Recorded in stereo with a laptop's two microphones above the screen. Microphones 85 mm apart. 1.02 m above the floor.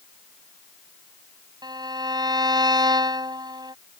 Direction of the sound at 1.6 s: 55° right (ahead or behind).